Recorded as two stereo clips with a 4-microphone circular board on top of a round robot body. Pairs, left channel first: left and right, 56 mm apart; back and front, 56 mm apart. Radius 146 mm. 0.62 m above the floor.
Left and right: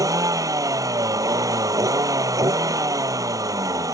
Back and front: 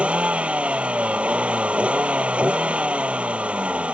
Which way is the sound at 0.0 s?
70° right.